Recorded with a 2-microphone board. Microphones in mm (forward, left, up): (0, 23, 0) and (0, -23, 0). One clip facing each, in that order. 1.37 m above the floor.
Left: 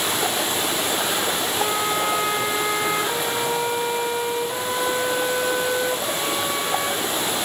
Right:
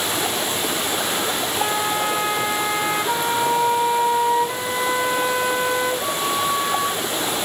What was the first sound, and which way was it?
A flute, 30° right (ahead or behind).